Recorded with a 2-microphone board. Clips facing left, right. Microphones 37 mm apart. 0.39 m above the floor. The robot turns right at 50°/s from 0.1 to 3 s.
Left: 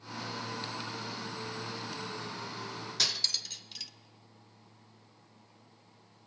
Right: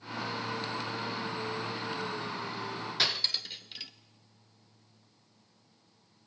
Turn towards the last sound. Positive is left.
turn(degrees=-25)  # may be behind; listen again after turning